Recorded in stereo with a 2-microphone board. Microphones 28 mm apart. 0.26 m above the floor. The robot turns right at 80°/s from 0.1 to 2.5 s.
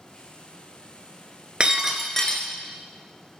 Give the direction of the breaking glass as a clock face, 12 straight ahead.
1 o'clock.